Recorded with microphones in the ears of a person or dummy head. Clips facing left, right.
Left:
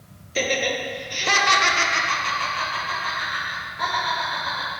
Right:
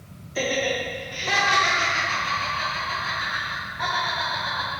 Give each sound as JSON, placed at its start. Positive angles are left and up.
{"t": 0.3, "sound": "laughter", "side_deg": 35, "distance_m": 1.3}